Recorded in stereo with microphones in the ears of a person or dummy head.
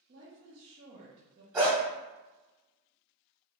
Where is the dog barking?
10° right (ahead or behind), 1.4 m.